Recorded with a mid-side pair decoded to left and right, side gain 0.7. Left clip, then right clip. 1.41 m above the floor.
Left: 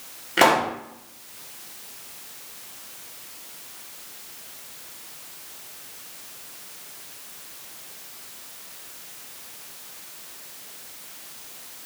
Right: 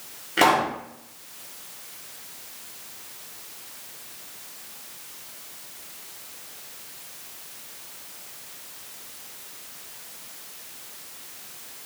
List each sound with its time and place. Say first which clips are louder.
0.4 s a pop: left 1 dB; 10° left, 0.8 m